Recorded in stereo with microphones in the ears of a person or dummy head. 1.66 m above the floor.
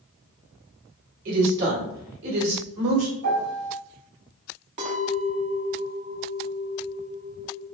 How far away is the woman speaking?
About 1.4 m.